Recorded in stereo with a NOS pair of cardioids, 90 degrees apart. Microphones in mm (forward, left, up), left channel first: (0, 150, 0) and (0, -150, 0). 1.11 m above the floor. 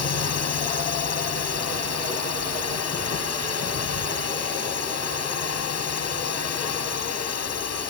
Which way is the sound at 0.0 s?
55° left.